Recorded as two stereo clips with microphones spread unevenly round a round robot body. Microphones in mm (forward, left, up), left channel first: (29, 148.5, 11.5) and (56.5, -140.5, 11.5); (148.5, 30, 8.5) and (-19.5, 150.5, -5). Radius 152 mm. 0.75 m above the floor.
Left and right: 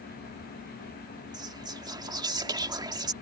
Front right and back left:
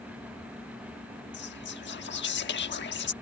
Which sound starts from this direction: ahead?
Whispering, at 1.3 s.